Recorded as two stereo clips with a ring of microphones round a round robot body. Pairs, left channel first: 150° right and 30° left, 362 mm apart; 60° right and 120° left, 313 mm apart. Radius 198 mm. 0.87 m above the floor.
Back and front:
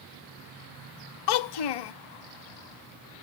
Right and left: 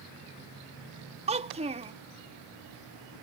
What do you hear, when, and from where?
1.3 s a child speaking: 165° right